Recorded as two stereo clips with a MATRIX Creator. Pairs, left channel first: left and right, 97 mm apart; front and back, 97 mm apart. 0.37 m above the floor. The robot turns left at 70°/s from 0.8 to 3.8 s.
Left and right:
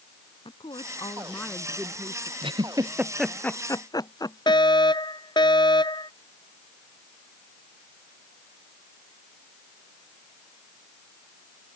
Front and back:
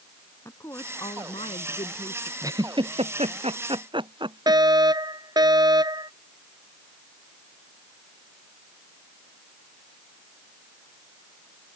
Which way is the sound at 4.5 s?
135° left.